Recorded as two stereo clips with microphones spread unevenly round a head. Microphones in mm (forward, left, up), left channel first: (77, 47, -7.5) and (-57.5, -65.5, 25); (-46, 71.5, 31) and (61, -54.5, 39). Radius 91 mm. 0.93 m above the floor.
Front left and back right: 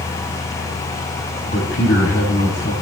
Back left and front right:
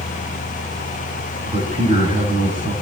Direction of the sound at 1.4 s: Straight ahead.